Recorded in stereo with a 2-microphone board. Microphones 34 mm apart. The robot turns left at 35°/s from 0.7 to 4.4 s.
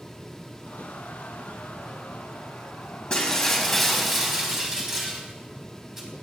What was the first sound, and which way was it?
Breaking glass, 30° left.